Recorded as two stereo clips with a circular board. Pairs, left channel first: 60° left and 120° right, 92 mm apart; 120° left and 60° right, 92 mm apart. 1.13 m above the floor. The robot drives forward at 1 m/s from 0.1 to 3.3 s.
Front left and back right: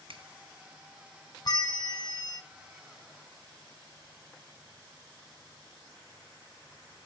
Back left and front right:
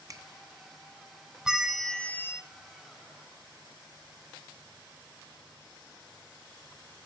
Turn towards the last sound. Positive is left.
turn(degrees=155)